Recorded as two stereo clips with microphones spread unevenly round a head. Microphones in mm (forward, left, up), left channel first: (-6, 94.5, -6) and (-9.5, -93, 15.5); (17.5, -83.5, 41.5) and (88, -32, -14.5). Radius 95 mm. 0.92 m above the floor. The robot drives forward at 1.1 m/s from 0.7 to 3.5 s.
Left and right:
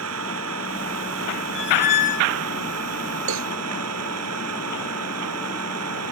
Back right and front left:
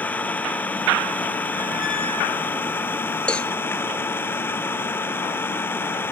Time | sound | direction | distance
0.0 | an engine running | 75° right | ?
1.6 | a squeak | 115° left | ?
3.3 | a cowbell | 75° right | ?